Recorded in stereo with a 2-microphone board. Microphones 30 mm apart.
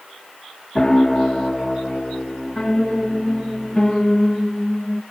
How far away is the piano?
About 0.6 m.